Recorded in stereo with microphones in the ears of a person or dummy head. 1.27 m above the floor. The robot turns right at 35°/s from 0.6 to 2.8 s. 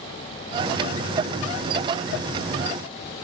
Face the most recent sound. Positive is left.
No sound to turn to.